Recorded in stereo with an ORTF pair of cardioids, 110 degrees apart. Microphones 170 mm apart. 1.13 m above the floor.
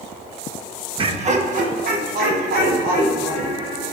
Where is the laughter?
30° right, 1.2 m; by 3.9 s 65° right, 5.5 m.